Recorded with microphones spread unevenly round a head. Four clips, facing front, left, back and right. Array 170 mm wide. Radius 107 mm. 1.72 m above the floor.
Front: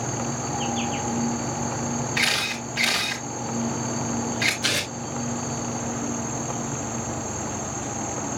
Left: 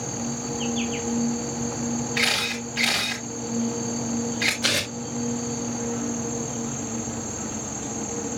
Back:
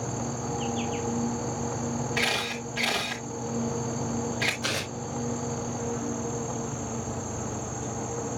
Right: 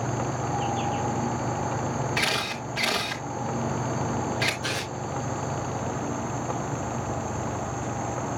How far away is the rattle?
I don't hear a rattle.